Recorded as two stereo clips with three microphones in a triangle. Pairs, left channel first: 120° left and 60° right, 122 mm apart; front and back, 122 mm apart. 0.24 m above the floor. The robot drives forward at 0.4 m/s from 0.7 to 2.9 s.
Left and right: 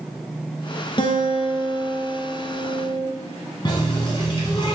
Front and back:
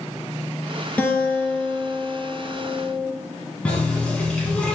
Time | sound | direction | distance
1.0 | a guitar | 75° left | 1.3 m
3.6 | a running tap | 80° left | 1.5 m